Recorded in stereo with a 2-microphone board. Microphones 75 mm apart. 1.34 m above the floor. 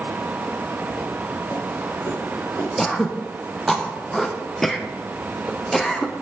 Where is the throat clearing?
5° left (ahead or behind), 0.5 m.